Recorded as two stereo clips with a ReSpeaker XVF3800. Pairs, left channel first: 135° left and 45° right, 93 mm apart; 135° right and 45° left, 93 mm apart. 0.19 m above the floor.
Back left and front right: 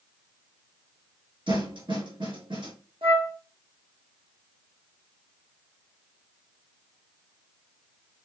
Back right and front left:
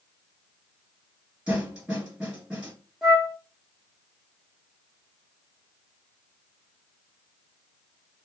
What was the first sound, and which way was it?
A snare drum, 35° right.